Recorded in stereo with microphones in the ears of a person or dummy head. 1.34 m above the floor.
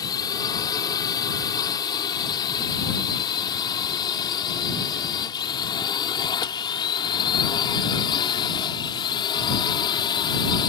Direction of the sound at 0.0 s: 15° left (ahead or behind).